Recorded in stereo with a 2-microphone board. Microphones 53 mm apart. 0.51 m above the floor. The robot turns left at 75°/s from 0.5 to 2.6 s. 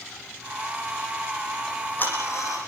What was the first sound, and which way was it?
Ticking, 10° left (ahead or behind).